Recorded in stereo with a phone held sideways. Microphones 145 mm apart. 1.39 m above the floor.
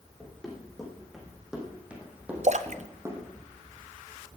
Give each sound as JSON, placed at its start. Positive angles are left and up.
{"t": 0.2, "sound": "running footsteps", "side_deg": 5, "distance_m": 5.0}
{"t": 2.4, "sound": "a splash", "side_deg": -50, "distance_m": 0.6}